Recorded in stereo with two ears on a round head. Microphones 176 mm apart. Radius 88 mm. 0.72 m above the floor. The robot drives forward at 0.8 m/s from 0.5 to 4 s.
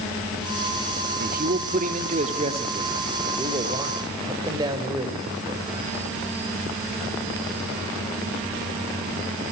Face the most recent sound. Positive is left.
turn(degrees=-20)  # may be behind; listen again after turning